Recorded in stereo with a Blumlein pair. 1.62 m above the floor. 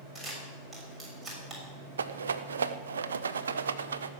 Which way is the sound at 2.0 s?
70° right.